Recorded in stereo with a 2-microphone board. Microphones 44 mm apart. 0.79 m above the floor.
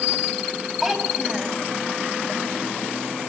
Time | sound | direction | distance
0.8 | a child speaking | 5° right (ahead or behind) | 4 m